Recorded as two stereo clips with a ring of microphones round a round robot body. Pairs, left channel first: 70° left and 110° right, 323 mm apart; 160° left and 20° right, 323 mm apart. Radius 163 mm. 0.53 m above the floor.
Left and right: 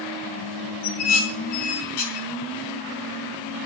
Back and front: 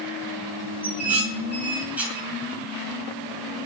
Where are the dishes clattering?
65° left, 4.5 m.